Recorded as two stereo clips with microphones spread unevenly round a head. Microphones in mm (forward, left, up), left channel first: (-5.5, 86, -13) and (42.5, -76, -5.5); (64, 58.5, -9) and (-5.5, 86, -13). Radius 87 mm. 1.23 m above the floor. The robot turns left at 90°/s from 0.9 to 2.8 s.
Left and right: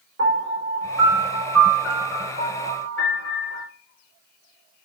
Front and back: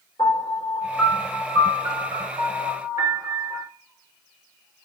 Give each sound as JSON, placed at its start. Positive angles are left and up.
{"t": 0.2, "sound": "a piano", "azimuth_deg": -70, "distance_m": 5.0}